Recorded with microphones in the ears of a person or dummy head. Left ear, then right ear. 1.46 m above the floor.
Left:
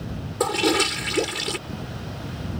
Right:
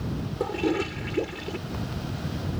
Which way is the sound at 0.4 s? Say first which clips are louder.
Left 7 dB; 60° left (ahead or behind).